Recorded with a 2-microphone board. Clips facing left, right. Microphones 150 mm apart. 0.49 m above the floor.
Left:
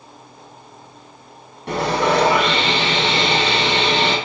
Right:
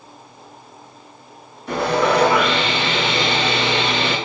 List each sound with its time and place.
1.7 s sawing: 75° left (ahead or behind), 5 m